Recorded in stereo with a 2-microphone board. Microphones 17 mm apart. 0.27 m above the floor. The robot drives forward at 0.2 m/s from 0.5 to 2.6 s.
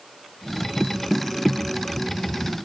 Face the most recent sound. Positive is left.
No sound to turn to.